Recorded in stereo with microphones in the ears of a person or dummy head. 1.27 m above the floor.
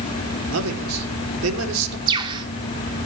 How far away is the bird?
About 3 m.